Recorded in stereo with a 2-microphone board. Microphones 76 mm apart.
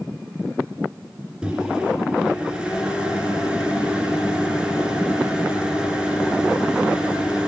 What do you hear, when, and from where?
1.4 s a microwave: 15° right (ahead or behind), 1.7 m